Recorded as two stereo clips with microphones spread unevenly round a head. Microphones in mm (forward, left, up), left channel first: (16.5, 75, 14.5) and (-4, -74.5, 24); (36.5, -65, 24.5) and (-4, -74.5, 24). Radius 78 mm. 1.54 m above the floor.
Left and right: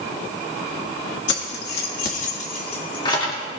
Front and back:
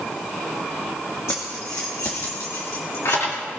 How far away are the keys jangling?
About 1.7 m.